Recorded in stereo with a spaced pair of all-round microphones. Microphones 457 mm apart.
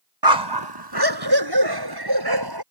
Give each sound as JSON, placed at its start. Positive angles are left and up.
{"t": 0.2, "sound": "a dog barking", "side_deg": -65}